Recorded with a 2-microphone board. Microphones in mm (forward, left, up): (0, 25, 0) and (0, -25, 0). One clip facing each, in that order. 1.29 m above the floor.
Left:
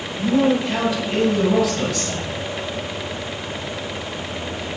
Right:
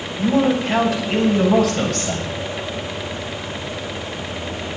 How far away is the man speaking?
About 7.5 m.